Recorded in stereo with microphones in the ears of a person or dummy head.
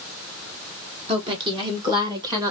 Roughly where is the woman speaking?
Right.